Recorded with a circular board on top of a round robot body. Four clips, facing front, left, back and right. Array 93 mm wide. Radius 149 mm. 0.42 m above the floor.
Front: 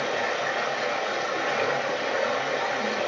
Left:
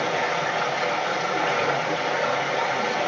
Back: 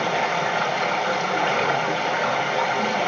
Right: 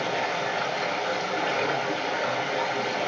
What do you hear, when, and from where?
0.0 s running water: 165° left, 4 m